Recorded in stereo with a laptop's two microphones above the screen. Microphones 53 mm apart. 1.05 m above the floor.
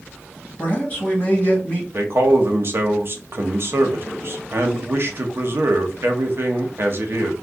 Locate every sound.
0.6 s a man speaking: 35° left (ahead or behind), 2.0 m
1.9 s a man speaking: 50° right (ahead or behind), 0.9 m